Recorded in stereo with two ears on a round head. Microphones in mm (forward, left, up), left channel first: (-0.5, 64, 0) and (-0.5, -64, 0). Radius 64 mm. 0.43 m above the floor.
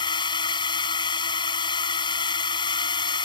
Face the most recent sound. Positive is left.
turn(degrees=35)  # may be behind; listen again after turning